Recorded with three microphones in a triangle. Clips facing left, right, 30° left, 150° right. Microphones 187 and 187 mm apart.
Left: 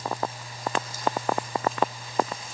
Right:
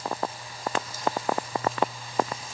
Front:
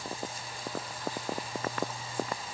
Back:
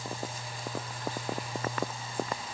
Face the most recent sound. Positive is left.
No sound to turn to.